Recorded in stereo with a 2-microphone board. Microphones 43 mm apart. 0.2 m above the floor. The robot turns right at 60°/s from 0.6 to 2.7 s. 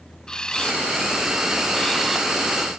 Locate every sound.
0.3 s a camera shutter: 20° left (ahead or behind), 0.7 m; by 2.3 s 5° left (ahead or behind), 0.7 m